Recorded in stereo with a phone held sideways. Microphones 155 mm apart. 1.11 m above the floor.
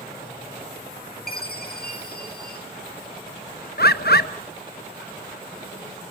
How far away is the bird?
About 0.9 m.